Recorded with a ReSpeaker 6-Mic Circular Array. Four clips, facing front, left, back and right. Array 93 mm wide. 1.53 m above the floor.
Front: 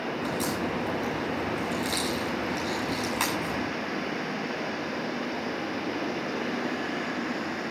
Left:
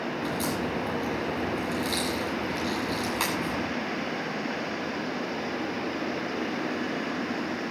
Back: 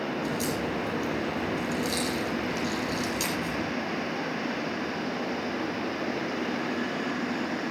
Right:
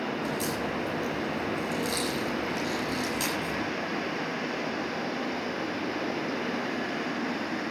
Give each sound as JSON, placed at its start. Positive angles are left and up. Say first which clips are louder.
{"t": 0.2, "sound": "a crack", "louder": "left 1 dB, even", "azimuth_deg": 40, "distance_m": 8.0}